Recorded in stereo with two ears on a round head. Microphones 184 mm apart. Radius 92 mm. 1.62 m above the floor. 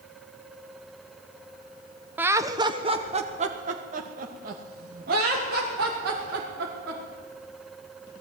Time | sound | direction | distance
2.2 | laughter | 10° right (ahead or behind) | 1.1 m